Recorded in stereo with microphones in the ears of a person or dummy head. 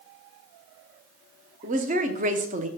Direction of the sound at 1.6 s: 40° right (ahead or behind).